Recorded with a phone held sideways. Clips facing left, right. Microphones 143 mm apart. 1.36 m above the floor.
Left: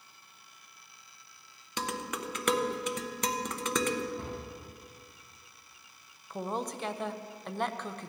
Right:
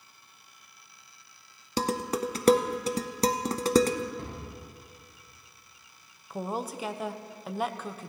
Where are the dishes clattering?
35° right (ahead or behind), 0.6 m.